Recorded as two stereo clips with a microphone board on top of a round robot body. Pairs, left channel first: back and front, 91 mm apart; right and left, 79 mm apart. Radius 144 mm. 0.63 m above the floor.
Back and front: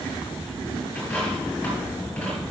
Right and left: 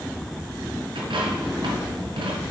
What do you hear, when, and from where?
0.9 s a dropped coin: 100° left, 2.5 m